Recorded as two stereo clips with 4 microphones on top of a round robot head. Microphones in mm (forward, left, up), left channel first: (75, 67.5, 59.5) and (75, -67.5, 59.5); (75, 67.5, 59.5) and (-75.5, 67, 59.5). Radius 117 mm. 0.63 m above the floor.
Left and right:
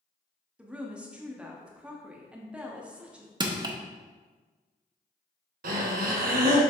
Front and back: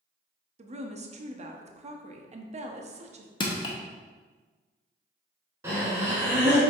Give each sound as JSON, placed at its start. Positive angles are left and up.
{"t": 0.6, "sound": "a woman speaking", "azimuth_deg": -170, "distance_m": 0.9}
{"t": 3.4, "sound": "crushing", "azimuth_deg": -45, "distance_m": 1.1}
{"t": 5.6, "sound": "breathing", "azimuth_deg": -100, "distance_m": 1.0}